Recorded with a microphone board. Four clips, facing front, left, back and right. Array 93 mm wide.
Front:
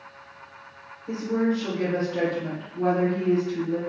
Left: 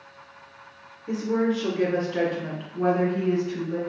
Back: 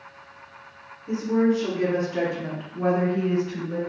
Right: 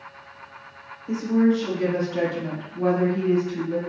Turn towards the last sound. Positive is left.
turn(degrees=150)